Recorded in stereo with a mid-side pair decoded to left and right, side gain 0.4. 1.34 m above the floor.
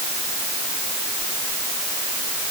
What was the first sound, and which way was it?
Only background noise.